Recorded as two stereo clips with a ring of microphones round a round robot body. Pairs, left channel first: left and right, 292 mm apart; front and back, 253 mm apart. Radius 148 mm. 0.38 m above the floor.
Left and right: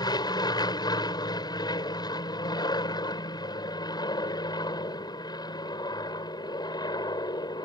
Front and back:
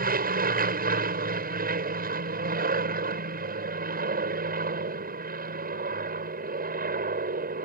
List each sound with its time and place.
0.0 s an aircraft: 160° left